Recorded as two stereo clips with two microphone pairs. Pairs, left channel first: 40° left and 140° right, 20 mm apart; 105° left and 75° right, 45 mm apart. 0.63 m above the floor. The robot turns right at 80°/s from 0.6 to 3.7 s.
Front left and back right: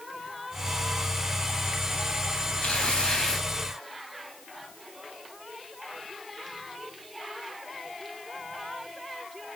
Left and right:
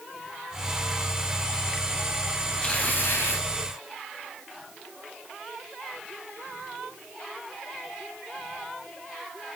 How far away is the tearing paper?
About 3.5 m.